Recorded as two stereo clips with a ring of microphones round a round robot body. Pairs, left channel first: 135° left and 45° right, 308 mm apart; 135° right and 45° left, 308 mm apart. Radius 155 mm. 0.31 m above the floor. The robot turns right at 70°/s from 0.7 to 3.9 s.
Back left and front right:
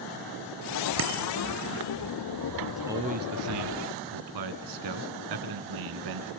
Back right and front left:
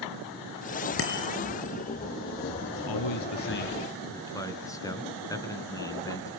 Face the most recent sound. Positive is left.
turn(degrees=-55)